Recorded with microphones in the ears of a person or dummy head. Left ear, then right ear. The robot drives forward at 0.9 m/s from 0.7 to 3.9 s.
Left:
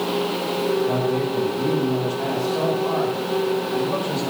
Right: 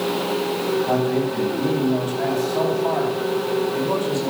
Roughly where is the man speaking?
Right.